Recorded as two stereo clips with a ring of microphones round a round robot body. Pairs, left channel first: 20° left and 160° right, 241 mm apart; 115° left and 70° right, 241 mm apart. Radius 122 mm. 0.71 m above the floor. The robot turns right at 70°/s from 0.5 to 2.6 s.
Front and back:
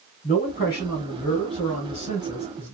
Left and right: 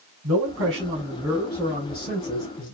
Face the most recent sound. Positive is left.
turn(degrees=110)